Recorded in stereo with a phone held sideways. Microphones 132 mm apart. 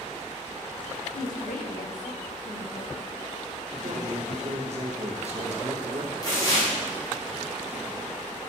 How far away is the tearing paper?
About 3 m.